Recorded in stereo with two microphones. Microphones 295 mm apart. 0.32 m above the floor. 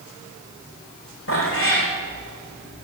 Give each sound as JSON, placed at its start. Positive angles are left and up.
{"t": 1.3, "sound": "a cat meowing", "side_deg": 45, "distance_m": 7.0}